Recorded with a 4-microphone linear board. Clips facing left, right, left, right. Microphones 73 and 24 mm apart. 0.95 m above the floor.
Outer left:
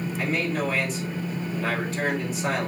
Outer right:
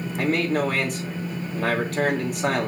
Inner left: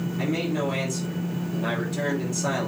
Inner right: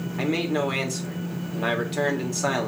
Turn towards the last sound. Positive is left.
turn(degrees=-55)  # may be behind; listen again after turning